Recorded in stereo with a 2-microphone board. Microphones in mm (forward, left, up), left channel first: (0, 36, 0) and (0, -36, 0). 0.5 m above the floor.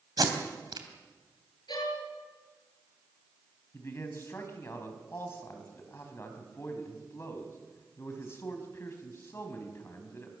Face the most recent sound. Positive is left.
turn(degrees=35)  # may be behind; listen again after turning